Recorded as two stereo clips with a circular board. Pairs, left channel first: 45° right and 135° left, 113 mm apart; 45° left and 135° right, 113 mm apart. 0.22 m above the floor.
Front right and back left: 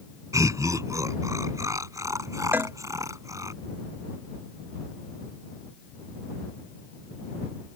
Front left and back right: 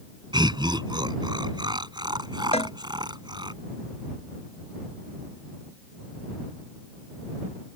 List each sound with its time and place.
0.3 s laughter: 170° right
2.5 s a cowbell: 60° left